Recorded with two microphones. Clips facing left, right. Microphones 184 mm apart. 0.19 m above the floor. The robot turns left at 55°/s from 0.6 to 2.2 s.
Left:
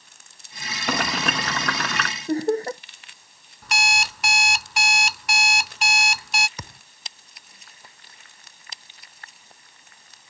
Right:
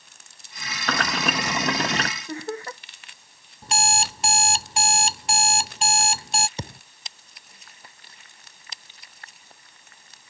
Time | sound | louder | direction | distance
0.9 | boiling | left 1 dB | 20° left | ?
2.3 | laughter | left 10 dB | 40° left (ahead or behind) | ?
3.6 | an alarm clock | right 2 dB | 30° right (ahead or behind) | ?
6.6 | a thud | right 6 dB | 30° right (ahead or behind) | ?